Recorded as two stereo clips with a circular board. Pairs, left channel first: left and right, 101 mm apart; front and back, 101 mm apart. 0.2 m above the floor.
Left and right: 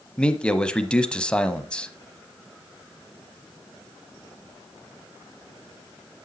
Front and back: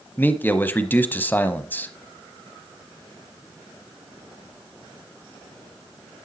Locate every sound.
0.2 s a man speaking: 30° left, 1.0 m